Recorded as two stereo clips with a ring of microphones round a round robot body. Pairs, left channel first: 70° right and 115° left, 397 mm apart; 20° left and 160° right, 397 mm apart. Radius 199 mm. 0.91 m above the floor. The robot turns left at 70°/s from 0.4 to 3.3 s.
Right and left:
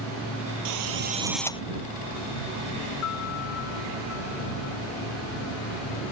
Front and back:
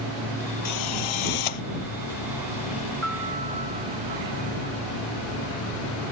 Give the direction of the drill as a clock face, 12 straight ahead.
10 o'clock.